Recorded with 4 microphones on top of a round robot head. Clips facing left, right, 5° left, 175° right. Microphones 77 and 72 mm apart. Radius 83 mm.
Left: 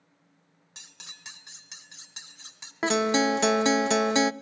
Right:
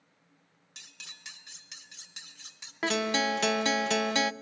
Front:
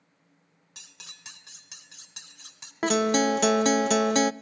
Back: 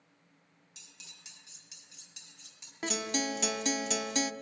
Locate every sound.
0.8 s cutlery clinking: 35° left, 2.5 m
2.8 s a guitar: 25° left, 0.7 m